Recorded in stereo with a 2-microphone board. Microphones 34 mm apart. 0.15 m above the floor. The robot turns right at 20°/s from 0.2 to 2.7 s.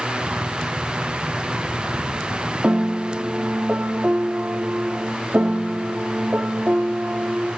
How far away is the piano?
About 0.8 m.